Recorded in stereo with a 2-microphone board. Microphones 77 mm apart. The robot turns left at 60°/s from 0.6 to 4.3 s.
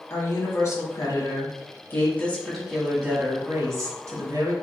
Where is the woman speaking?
120° left, 1.3 m; by 4.5 s 100° right, 1.3 m.